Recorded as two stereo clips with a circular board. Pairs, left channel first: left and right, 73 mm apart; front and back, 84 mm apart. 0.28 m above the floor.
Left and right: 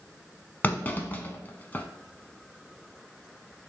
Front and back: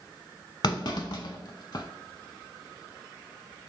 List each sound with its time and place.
0.6 s a clunk: 30° left, 0.5 m